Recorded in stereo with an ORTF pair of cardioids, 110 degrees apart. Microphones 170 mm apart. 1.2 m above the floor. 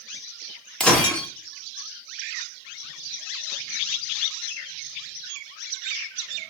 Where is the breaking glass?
5° left, 1.2 m.